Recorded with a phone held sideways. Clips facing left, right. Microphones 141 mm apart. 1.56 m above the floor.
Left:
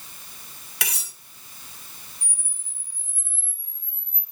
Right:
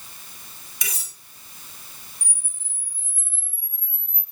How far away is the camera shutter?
About 2.5 m.